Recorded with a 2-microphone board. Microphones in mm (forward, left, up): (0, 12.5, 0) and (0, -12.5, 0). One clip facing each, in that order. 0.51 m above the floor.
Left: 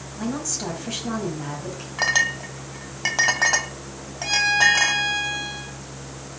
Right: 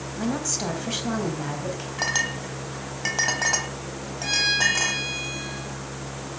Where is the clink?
15° left (ahead or behind), 1.7 m.